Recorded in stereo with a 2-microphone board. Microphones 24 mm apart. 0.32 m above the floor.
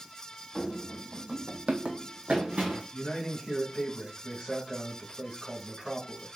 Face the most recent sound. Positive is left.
turn(degrees=35)  # may be behind; listen again after turning